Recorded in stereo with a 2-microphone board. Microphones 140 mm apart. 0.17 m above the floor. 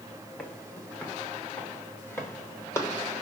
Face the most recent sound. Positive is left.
turn(degrees=20)  # may be behind; listen again after turning